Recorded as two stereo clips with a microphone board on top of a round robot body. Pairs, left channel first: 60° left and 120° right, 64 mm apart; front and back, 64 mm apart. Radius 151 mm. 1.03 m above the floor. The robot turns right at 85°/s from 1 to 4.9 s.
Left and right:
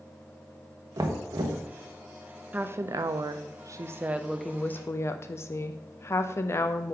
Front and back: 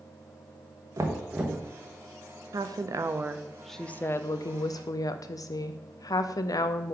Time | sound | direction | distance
1.0 | knocking | 145° right | 0.9 m
2.5 | a woman speaking | 175° left | 0.5 m